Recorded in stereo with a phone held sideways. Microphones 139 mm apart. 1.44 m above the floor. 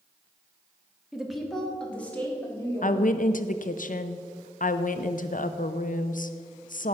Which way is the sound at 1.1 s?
5° right (ahead or behind).